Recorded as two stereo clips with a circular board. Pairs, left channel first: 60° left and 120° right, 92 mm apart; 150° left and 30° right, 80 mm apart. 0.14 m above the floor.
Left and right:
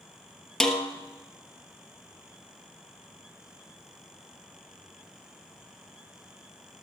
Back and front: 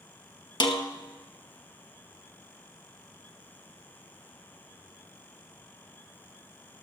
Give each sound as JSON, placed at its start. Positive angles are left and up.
{"t": 0.6, "sound": "a snare drum", "azimuth_deg": 145, "distance_m": 1.4}